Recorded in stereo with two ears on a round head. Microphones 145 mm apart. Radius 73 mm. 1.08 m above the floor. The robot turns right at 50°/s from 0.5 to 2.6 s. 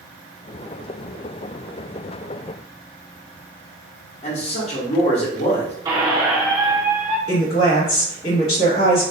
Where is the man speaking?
40° left (ahead or behind), 0.9 m.